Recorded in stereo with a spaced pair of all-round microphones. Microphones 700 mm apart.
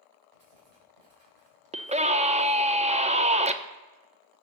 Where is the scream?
10° right (ahead or behind), 0.5 m.